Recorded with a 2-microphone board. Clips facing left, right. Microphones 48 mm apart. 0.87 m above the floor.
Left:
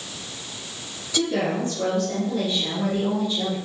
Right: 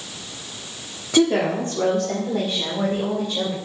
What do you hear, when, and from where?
1.1 s a woman speaking: 55° right (ahead or behind), 1.8 m; by 3.6 s 80° right, 4 m